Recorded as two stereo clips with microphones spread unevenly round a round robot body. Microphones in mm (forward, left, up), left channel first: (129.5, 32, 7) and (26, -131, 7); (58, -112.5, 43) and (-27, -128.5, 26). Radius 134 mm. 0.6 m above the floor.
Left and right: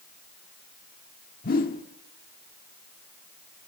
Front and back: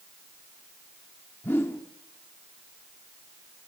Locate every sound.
1.4 s a whoosh: 90° left, 1.4 m